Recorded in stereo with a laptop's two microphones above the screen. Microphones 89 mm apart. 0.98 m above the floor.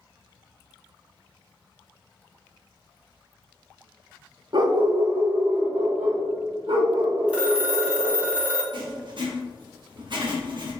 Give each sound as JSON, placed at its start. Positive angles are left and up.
{"t": 4.5, "sound": "a dog barking", "side_deg": -55, "distance_m": 0.5}
{"t": 7.3, "sound": "a phone ringing", "side_deg": -15, "distance_m": 1.5}
{"t": 8.7, "sound": "writing", "side_deg": -60, "distance_m": 1.1}